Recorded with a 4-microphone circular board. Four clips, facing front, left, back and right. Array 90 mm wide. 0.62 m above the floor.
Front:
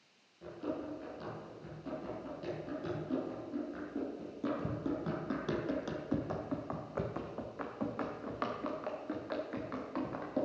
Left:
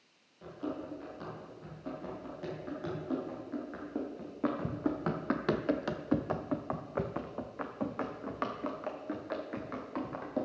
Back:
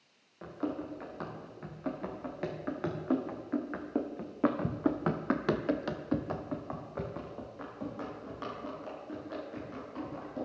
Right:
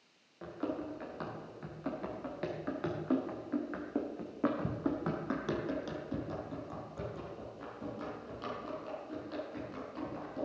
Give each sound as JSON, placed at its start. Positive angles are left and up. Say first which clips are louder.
{"t": 0.4, "sound": "running footsteps", "louder": "right 1 dB, back 3 dB", "azimuth_deg": -145, "distance_m": 3.5}